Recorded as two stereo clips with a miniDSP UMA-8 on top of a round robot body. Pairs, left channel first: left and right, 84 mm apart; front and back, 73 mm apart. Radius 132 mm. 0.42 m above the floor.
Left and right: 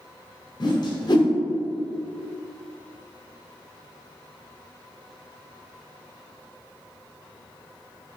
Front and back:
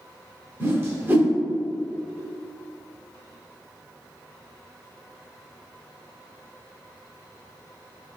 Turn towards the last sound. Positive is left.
turn(degrees=120)